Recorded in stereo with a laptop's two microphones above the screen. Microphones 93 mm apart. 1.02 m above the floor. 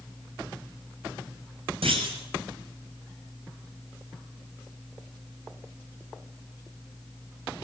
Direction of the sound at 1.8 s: 80° right.